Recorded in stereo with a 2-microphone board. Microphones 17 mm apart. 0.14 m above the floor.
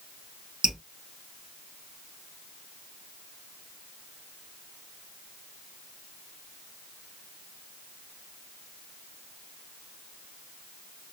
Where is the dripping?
60° right (ahead or behind), 1.5 m.